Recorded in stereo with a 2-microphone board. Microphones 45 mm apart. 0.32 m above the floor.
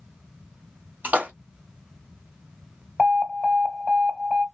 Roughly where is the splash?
Right.